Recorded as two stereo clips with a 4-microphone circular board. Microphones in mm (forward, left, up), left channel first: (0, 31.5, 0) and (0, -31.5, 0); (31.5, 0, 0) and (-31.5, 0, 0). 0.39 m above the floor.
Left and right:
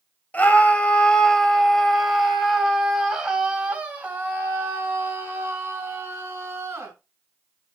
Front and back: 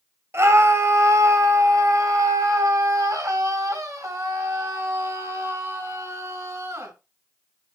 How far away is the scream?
About 2.5 m.